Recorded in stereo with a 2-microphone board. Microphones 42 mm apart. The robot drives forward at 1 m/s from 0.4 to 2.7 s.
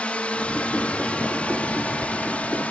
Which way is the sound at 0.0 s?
30° left (ahead or behind).